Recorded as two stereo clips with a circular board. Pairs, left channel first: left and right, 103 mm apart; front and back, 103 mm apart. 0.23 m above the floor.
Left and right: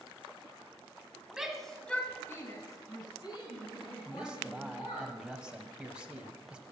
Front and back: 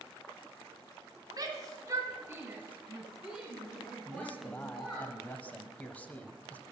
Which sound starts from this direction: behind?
A shout, at 1.3 s.